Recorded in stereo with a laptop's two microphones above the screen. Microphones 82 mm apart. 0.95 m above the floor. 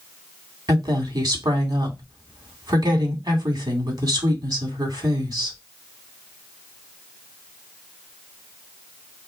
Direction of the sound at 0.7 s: 55° right (ahead or behind).